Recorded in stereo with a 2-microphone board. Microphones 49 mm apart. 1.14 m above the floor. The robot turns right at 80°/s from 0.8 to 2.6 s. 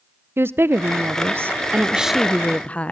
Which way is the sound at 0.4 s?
110° right.